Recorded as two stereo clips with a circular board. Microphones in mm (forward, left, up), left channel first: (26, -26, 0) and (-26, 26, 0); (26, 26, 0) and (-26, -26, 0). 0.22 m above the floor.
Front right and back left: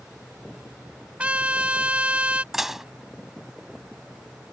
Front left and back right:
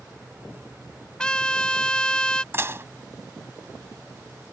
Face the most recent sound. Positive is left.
turn(degrees=-145)